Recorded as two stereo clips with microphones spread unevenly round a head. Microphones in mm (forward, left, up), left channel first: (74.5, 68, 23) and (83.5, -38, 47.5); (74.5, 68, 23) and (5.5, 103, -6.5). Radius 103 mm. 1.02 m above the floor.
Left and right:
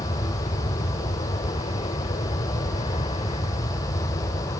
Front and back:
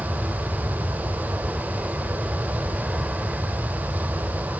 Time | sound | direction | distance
0.0 | an aircraft | 70° left | ?